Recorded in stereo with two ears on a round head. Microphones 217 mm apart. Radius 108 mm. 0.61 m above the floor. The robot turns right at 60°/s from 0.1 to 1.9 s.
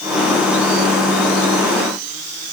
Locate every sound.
Only background noise.